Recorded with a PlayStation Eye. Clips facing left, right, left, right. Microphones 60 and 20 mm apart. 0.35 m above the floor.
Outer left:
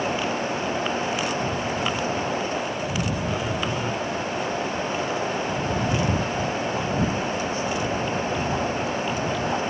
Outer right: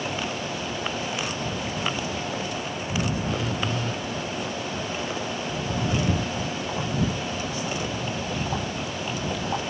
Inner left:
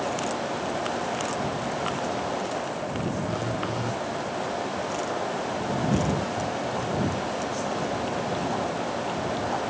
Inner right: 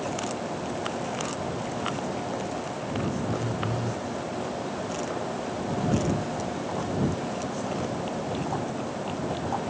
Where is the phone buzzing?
20° left (ahead or behind).